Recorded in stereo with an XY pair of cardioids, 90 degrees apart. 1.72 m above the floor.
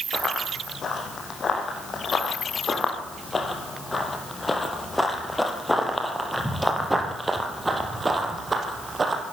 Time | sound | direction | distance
0.1 | running footsteps | 50° left | 6 m